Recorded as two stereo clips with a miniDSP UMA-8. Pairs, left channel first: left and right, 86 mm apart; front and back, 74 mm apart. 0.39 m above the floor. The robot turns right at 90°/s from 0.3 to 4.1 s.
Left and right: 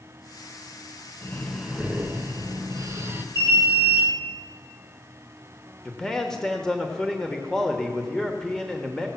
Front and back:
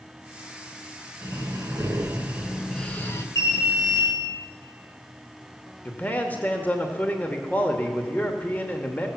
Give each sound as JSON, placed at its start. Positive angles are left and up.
{"t": 1.2, "sound": "breathing", "azimuth_deg": 145, "distance_m": 1.0}
{"t": 3.4, "sound": "an alarm", "azimuth_deg": -35, "distance_m": 4.0}
{"t": 5.8, "sound": "a man speaking", "azimuth_deg": 15, "distance_m": 1.0}